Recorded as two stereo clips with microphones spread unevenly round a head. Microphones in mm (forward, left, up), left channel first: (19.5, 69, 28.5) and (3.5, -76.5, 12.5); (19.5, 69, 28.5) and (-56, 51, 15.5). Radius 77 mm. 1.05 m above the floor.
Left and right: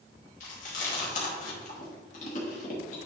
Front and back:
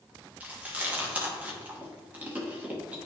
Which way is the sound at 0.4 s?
125° left.